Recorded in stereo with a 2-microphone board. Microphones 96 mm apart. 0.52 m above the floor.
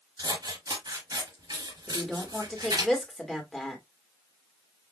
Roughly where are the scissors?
Right.